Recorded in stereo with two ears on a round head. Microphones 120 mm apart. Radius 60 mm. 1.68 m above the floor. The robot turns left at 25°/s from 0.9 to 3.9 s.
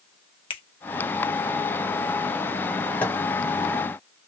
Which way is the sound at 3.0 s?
15° left (ahead or behind).